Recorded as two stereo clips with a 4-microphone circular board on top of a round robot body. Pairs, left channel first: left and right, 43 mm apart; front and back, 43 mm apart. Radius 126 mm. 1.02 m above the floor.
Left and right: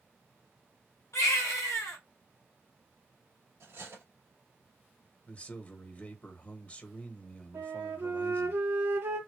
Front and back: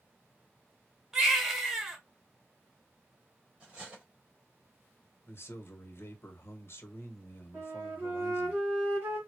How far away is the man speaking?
About 1.5 m.